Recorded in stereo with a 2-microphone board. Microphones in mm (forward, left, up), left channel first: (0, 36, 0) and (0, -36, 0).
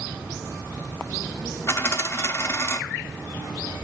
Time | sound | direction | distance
1.7 | a dropped coin | 35° left (ahead or behind) | 0.9 m